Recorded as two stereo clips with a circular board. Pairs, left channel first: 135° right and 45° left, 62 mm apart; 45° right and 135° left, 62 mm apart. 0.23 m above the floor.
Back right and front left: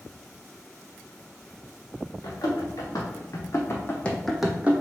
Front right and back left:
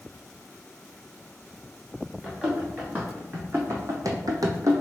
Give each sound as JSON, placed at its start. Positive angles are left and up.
{"t": 2.2, "sound": "running footsteps", "azimuth_deg": -155, "distance_m": 1.9}